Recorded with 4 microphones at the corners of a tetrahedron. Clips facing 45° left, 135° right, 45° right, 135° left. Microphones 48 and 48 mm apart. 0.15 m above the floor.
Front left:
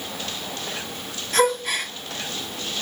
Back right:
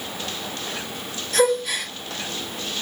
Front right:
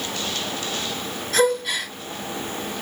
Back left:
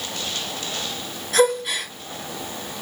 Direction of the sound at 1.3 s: 65° left.